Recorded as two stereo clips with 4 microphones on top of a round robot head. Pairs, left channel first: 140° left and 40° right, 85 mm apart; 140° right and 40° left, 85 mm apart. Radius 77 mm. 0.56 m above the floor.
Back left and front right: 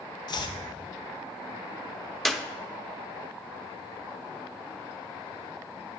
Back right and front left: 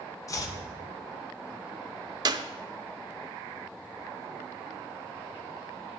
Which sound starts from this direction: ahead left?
A clap, at 2.2 s.